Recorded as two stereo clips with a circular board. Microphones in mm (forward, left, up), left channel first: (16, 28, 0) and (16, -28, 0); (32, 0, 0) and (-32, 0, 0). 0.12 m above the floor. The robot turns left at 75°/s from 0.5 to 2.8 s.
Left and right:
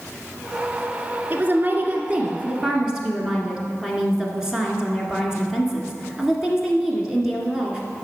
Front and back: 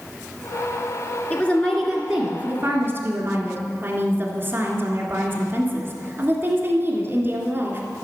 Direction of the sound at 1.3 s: 50° right.